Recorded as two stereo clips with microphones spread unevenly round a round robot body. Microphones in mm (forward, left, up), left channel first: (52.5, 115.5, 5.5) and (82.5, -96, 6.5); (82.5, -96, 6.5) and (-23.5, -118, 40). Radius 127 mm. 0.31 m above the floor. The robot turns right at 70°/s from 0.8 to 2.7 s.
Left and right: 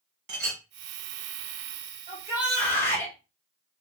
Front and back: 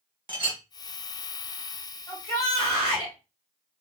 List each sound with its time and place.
0.3 s a clink: 115° right, 1.4 m
2.1 s a shout: 25° right, 2 m; by 3.1 s 20° left, 2 m